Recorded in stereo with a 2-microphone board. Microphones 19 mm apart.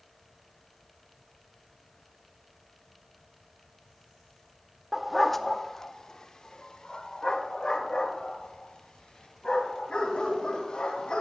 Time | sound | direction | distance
4.9 | a dog barking | 10° right (ahead or behind) | 0.6 m